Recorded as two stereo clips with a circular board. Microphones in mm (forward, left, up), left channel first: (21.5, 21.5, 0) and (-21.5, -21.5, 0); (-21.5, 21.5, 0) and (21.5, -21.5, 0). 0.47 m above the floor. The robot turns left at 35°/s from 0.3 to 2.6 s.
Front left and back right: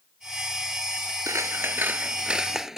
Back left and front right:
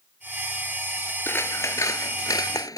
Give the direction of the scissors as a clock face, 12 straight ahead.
6 o'clock.